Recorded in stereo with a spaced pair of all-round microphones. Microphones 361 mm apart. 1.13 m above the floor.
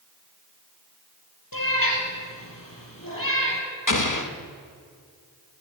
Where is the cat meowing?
75° left (ahead or behind), 3.5 m.